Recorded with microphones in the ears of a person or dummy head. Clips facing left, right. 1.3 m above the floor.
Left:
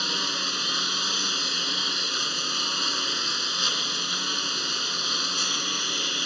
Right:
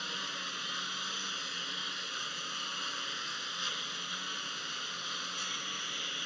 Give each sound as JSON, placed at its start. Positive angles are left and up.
{"t": 0.0, "sound": "a lawn mower", "side_deg": 75}